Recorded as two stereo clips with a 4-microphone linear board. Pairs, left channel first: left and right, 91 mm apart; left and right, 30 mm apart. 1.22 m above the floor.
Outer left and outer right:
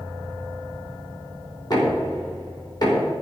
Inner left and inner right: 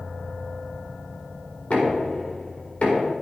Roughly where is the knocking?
Left.